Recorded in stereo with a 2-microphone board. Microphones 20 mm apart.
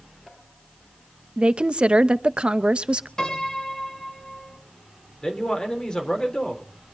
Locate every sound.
1.4 s a woman speaking: 55° right (ahead or behind), 0.6 m
3.2 s a piano: 30° left (ahead or behind), 3 m
5.2 s a man speaking: 35° left (ahead or behind), 4 m